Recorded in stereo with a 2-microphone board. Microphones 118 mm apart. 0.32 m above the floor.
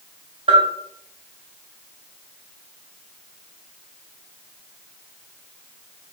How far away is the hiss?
I don't hear a hiss.